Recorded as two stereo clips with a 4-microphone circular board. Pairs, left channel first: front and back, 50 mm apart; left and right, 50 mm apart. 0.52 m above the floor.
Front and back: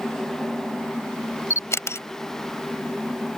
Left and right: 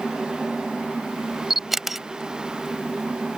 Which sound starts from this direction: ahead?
A camera shutter, at 1.5 s.